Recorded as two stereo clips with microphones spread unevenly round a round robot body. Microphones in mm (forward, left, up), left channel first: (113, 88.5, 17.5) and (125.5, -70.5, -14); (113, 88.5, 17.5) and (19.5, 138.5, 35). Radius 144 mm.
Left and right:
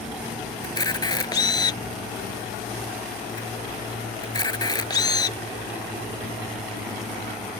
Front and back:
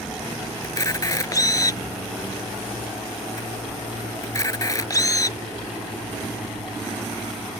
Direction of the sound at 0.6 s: 30° left.